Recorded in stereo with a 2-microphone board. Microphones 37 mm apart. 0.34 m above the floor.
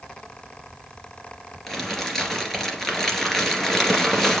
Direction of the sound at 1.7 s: 10° left (ahead or behind).